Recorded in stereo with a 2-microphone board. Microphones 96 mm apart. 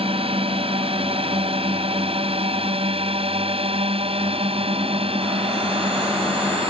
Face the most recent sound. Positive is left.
turn(degrees=-80)